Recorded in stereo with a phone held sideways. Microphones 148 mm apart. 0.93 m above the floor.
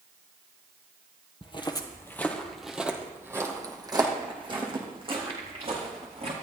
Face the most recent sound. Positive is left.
turn(degrees=-45)  # may be behind; listen again after turning